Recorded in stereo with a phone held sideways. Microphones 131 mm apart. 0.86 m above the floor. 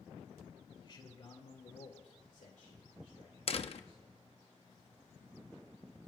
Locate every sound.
0.8 s a man speaking: 40° left (ahead or behind), 2.5 m; by 4.2 s 50° left (ahead or behind), 3 m
3.5 s a door slam: 55° left (ahead or behind), 0.7 m